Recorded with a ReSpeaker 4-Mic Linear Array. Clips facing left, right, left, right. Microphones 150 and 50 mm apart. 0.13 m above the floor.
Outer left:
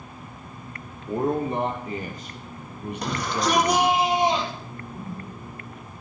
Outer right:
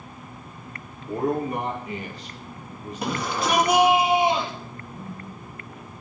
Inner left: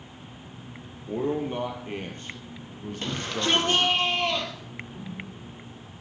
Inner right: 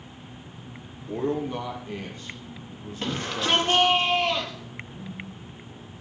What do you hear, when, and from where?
1.1 s a man speaking: 15° left (ahead or behind), 4 m; by 4.0 s 75° left (ahead or behind), 4.5 m
3.0 s a shout: 5° right (ahead or behind), 3.5 m
4.9 s a whoosh: 80° left, 8 m